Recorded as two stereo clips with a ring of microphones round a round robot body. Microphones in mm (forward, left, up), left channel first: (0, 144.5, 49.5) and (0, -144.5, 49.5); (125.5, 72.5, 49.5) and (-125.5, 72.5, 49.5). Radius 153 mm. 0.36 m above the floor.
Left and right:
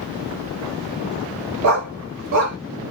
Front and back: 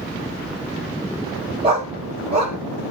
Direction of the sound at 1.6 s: 110° right.